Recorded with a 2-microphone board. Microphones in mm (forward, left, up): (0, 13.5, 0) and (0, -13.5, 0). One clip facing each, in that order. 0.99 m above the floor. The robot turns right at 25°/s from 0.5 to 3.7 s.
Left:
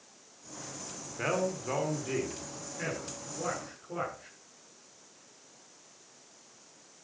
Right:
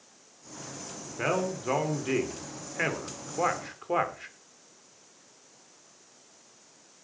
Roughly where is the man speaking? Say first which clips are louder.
Right 2 dB; centre.